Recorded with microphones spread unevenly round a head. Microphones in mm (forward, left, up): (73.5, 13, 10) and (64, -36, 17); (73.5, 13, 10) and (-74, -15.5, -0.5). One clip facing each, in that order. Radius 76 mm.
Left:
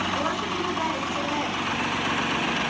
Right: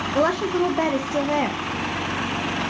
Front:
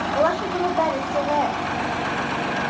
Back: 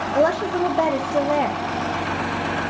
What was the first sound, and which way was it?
A woman speaking, 110° right.